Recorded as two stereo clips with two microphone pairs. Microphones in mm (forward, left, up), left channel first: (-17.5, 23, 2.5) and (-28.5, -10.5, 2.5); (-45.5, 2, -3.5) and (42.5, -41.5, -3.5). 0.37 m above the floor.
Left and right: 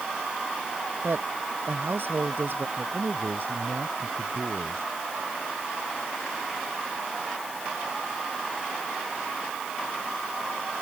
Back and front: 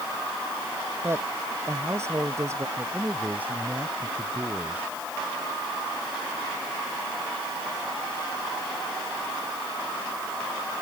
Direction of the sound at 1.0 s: 90° right.